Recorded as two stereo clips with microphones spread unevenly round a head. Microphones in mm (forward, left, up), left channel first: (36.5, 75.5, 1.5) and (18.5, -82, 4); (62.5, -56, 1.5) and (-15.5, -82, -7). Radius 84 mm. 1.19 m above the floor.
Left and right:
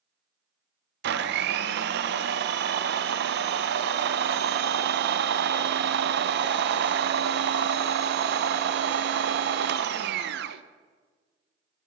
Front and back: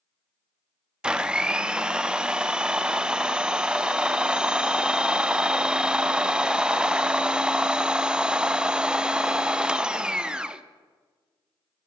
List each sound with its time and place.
1.0 s a blender: 80° right, 0.6 m